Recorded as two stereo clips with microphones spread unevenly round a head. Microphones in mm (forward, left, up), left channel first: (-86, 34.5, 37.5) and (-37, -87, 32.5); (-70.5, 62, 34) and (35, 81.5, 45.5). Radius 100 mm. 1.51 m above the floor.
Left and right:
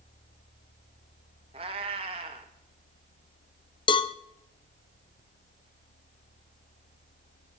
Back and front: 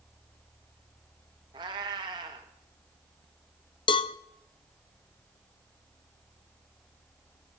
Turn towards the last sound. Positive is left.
turn(degrees=155)